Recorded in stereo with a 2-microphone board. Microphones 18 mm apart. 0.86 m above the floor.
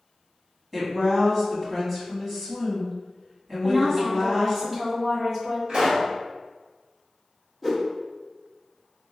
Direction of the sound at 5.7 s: 50° right (ahead or behind).